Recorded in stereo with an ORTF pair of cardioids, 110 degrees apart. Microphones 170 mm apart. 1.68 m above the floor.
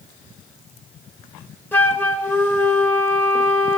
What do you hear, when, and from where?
1.7 s a flute: 10° left, 1.0 m